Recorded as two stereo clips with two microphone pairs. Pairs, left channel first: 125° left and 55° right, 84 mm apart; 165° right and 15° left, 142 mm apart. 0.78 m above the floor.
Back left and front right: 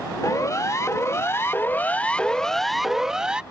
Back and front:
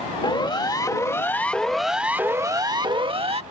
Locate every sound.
0.2 s a siren: 155° left; by 3.4 s 20° left